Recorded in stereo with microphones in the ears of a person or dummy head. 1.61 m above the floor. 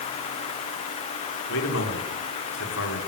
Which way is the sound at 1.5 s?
65° left (ahead or behind).